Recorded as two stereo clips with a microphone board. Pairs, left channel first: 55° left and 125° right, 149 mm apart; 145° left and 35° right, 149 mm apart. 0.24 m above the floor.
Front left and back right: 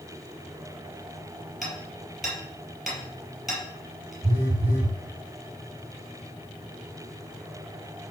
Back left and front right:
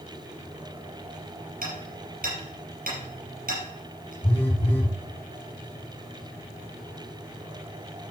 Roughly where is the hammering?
Ahead right.